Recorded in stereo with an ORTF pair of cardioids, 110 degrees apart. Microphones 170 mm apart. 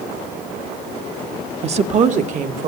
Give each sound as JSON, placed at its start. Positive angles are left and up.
{"t": 1.6, "sound": "a woman speaking", "azimuth_deg": -40, "distance_m": 1.1}